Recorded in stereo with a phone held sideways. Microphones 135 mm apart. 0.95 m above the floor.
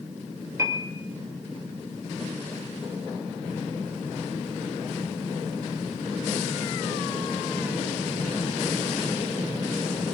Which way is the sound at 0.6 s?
25° right (ahead or behind).